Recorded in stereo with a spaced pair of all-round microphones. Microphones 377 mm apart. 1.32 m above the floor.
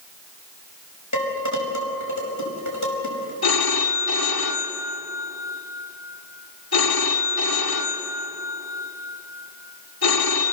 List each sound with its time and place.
1.1 s dishes clattering: 50° left (ahead or behind), 5.5 m
3.4 s a phone ringing: 70° left (ahead or behind), 2 m